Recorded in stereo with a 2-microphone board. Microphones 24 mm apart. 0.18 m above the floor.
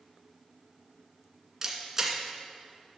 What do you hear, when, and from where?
1.6 s a camera shutter: 15° right (ahead or behind), 1.8 m